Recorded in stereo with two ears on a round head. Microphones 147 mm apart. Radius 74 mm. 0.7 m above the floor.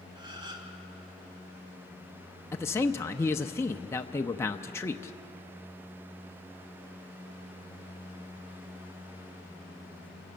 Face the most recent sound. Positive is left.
turn(degrees=15)  # may be behind; listen again after turning